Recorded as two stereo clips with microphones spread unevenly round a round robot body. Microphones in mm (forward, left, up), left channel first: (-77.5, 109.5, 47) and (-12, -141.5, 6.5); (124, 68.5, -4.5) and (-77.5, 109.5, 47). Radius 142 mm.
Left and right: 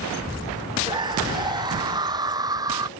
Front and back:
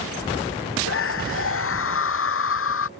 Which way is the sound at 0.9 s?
Straight ahead.